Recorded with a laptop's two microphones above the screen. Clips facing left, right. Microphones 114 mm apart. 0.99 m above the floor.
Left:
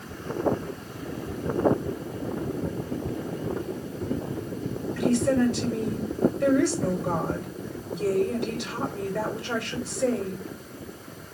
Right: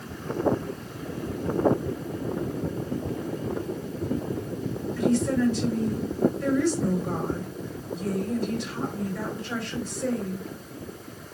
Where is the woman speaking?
85° left, 4 m.